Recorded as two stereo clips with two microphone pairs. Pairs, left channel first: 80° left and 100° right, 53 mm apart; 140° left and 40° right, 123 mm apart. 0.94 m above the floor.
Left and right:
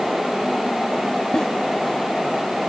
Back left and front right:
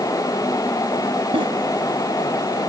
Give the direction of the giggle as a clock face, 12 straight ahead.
12 o'clock.